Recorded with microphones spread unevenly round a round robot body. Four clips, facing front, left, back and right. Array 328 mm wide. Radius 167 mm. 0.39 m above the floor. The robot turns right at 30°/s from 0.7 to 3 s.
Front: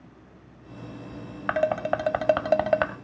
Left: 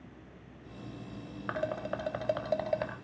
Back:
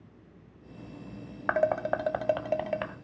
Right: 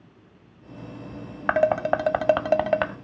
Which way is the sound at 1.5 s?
75° right.